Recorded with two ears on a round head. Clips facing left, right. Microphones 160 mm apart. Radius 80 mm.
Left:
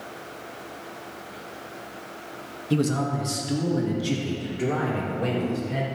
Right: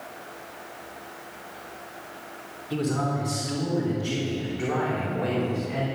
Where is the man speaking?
60° left (ahead or behind), 1.5 m; by 5.9 s 35° left (ahead or behind), 4 m.